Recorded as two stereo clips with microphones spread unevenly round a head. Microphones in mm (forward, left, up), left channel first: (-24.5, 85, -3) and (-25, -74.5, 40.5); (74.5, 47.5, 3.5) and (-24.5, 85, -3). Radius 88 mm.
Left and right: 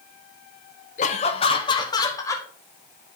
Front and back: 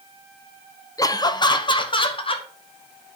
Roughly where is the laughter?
Ahead left.